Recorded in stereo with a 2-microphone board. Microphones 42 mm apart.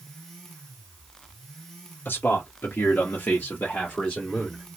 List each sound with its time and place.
2.0 s a man speaking: 55° left (ahead or behind), 1.1 m; by 4.6 s 15° left (ahead or behind), 1.3 m